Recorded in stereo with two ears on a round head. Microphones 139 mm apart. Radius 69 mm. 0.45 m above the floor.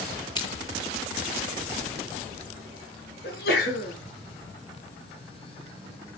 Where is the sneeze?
70° left (ahead or behind), 6 m.